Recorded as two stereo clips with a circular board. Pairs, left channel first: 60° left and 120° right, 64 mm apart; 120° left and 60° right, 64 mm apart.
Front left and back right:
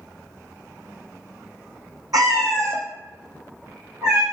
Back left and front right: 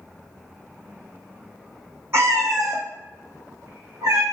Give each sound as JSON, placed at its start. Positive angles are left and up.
{"t": 2.1, "sound": "a cat meowing", "azimuth_deg": -105, "distance_m": 0.5}